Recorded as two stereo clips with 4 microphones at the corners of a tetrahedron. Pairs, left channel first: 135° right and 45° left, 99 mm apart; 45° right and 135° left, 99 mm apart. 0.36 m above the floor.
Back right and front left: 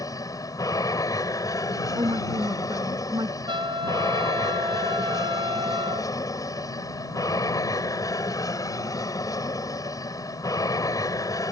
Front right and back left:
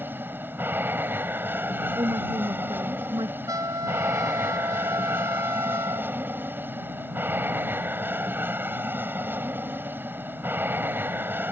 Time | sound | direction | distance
0.0 | an aircraft | 165° right | ?
2.0 | a woman speaking | 90° left | ?
3.5 | a trumpet | 80° left | ?